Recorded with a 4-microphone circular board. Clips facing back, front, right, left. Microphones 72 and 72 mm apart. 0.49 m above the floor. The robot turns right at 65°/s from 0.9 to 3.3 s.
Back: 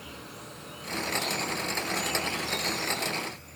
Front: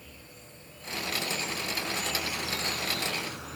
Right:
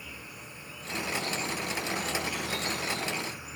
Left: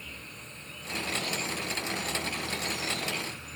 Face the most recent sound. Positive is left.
turn(degrees=-10)